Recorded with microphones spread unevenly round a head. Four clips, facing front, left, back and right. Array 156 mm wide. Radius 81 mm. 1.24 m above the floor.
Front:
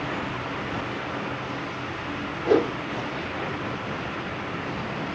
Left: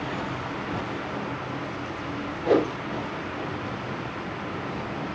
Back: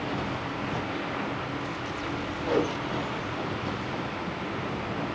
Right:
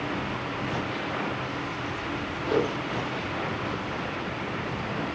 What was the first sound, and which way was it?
A whoosh, 40° left.